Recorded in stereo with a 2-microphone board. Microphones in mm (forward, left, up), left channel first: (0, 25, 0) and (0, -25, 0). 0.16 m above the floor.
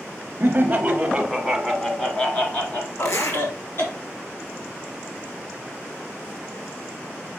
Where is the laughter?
35° right (ahead or behind), 1.3 m; by 4.0 s 55° left (ahead or behind), 1.8 m.